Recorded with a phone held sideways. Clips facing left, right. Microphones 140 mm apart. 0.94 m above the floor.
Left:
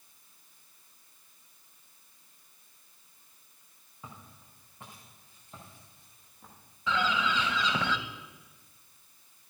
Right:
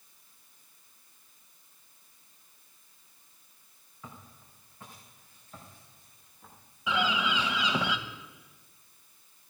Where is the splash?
No splash in this recording.